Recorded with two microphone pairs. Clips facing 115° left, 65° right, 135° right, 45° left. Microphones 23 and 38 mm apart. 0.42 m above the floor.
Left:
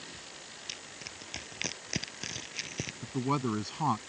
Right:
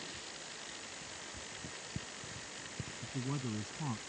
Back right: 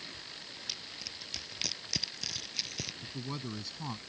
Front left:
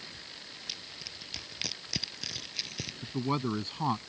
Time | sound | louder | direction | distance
0.7 | crushing | left 4 dB, even | 130° left | ?
3.0 | a man speaking | left 9 dB, front left 14 dB | 90° left | ?